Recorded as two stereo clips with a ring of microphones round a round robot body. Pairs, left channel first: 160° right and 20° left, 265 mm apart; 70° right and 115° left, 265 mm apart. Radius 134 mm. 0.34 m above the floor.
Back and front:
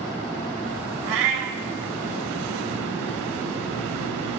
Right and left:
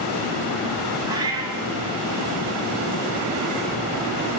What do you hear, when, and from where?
1.1 s a cat meowing: 35° left, 0.8 m